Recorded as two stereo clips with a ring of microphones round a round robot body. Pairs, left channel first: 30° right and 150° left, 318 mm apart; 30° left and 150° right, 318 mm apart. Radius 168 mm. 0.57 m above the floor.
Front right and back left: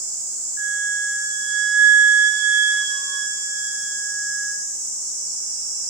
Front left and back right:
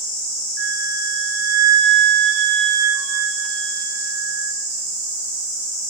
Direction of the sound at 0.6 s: 165° right.